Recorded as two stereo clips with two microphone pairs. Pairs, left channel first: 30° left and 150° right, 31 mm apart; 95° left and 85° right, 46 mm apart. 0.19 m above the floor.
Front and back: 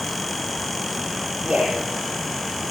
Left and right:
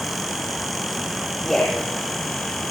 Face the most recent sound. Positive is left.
turn(degrees=170)